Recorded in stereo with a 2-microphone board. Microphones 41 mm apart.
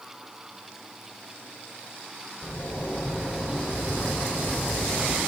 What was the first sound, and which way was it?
A zipper, 65° left (ahead or behind).